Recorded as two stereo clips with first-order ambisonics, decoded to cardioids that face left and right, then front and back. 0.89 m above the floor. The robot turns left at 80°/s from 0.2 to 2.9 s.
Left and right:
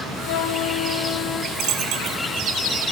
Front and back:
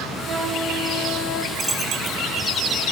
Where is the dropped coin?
90° right, 1.3 m; by 2.2 s 140° right, 1.3 m.